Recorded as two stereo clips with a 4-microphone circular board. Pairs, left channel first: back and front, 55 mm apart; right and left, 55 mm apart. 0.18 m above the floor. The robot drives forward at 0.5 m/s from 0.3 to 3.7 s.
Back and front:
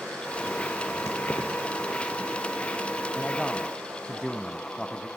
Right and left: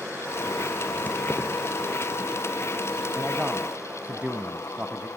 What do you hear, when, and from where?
1.1 s keys jangling: 150° right, 3 m; by 1.5 s 155° right, 3 m
3.1 s a man speaking: 75° left, 1.0 m; by 5.1 s 115° left, 1.1 m